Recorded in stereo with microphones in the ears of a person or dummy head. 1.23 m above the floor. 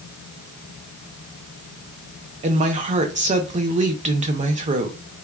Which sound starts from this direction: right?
A woman speaking, at 2.4 s.